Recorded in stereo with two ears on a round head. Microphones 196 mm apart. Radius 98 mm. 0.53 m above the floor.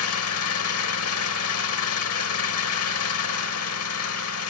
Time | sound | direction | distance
0.0 | an engine running | 75° left (ahead or behind) | 1.2 m